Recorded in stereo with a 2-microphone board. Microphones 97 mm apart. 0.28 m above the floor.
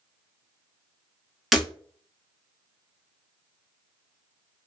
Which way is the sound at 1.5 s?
Centre (ahead or behind).